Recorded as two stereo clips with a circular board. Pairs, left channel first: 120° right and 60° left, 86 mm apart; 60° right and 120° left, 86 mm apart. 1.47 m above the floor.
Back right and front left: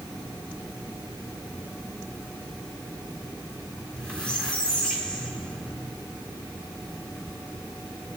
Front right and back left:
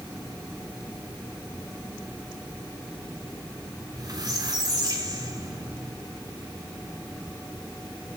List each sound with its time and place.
3.8 s a squeak: 160° left, 4 m